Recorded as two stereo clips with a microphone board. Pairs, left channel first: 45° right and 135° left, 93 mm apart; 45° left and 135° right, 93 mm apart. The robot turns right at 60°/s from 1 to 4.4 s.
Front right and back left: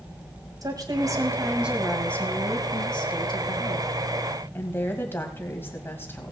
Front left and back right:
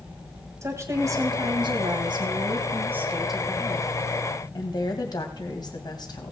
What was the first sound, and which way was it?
A woman speaking, 175° left.